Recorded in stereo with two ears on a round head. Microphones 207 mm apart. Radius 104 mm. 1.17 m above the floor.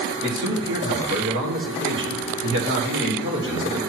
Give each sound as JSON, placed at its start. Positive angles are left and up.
{"t": 0.2, "sound": "a man speaking", "side_deg": -50, "distance_m": 1.8}